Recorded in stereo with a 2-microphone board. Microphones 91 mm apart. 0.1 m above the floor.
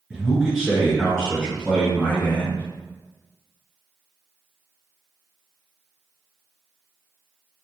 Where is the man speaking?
10° right (ahead or behind), 1.2 m; by 2.7 s 15° left (ahead or behind), 1.7 m.